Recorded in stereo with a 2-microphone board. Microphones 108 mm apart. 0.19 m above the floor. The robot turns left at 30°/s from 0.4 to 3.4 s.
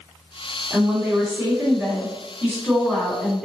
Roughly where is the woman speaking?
Right.